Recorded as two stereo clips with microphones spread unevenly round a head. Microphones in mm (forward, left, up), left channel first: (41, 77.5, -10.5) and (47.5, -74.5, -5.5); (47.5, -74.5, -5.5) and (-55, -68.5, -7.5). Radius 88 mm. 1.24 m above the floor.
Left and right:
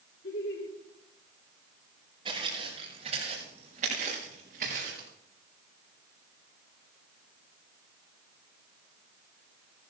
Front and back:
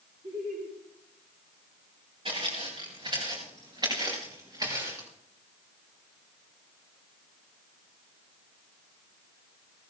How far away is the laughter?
About 4.5 m.